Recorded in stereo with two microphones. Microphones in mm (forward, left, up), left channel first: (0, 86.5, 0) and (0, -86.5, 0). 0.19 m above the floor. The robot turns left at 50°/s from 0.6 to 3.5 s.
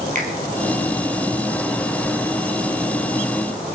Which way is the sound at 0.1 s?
50° right (ahead or behind).